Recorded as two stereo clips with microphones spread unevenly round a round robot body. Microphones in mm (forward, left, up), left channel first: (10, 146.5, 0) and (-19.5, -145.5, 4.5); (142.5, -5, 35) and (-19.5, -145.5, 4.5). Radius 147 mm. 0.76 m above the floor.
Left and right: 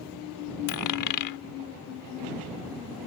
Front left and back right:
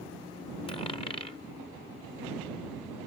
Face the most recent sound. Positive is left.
turn(degrees=115)